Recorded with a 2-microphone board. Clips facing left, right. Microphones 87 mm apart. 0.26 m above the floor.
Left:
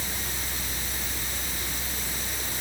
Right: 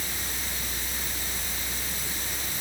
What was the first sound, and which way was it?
Only background noise.